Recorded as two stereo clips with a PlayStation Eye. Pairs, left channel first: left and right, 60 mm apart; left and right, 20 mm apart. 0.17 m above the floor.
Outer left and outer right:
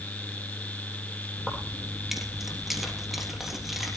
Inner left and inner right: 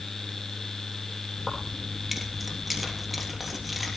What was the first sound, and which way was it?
Keys jangling, centre (ahead or behind).